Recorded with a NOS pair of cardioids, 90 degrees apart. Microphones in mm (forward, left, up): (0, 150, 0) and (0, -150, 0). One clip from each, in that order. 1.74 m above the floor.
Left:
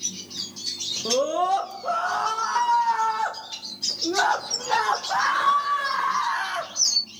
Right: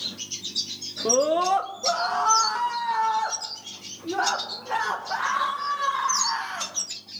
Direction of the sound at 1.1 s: 25° right.